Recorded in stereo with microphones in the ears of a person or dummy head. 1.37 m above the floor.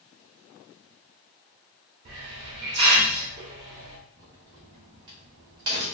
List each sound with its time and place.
2.0 s a hiss: 35° right (ahead or behind), 1.0 m
4.2 s a crack: 25° right (ahead or behind), 0.8 m